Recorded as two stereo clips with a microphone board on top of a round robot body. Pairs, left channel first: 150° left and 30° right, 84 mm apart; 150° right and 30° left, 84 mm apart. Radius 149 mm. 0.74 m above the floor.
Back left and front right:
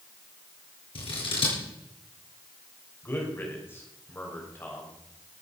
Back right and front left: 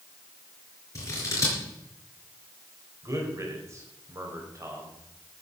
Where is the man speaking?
85° left, 4.5 m.